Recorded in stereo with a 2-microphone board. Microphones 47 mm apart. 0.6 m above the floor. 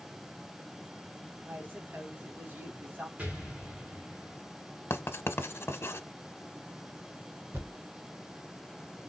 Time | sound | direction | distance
1.4 | a woman speaking | 45° right (ahead or behind) | 1.6 m
3.2 | an explosion | 30° right (ahead or behind) | 1.7 m
4.9 | writing | 55° left (ahead or behind) | 0.7 m
7.5 | a thud | 45° right (ahead or behind) | 2.5 m